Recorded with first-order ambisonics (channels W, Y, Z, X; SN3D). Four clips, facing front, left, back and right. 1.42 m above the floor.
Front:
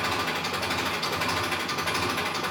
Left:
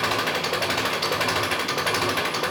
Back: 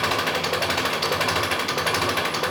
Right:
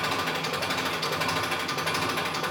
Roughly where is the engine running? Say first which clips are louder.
Left 4 dB, back 5 dB; behind left.